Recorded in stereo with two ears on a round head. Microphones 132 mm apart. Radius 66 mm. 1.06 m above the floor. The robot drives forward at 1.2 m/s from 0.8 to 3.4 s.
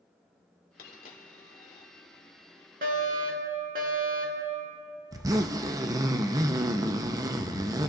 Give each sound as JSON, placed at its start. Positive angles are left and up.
{"t": 0.8, "sound": "a dropped coin", "side_deg": 70, "distance_m": 1.8}
{"t": 2.8, "sound": "a fire alarm", "side_deg": -60, "distance_m": 2.5}
{"t": 5.1, "sound": "a zipper", "side_deg": -20, "distance_m": 0.6}